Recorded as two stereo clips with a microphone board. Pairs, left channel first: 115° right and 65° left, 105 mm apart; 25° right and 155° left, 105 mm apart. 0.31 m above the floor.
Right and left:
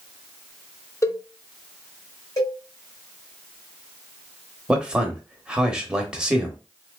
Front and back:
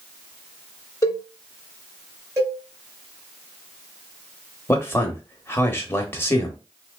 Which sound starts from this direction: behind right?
A cowbell, at 2.4 s.